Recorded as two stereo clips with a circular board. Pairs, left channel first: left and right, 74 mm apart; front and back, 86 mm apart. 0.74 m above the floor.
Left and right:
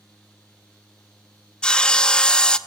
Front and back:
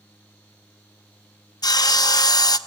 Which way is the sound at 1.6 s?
15° left.